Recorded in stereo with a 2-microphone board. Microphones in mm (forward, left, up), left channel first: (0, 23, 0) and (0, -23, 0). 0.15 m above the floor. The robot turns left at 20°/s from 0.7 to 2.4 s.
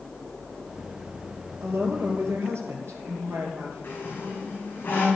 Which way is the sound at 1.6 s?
65° right (ahead or behind).